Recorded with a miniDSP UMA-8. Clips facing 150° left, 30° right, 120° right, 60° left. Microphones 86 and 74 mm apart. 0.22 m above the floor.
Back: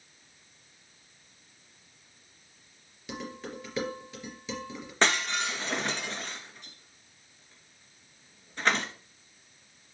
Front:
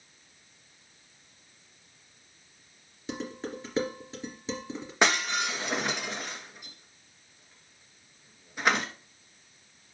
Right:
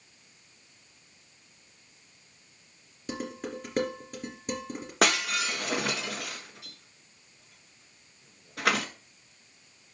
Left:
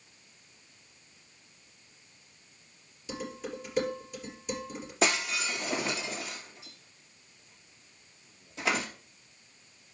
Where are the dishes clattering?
85° right, 3 m.